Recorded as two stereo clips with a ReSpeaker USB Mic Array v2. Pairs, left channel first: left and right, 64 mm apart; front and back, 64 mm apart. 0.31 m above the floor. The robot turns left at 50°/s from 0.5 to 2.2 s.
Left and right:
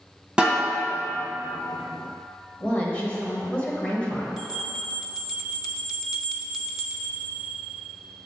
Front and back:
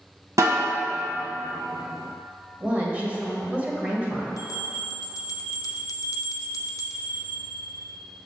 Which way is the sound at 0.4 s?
165° right.